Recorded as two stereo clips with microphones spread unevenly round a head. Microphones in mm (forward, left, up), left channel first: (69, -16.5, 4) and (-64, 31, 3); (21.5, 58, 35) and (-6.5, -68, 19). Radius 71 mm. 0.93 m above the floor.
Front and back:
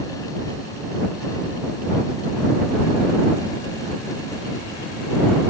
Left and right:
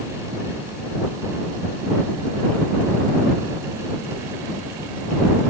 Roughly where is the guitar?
No guitar in this recording.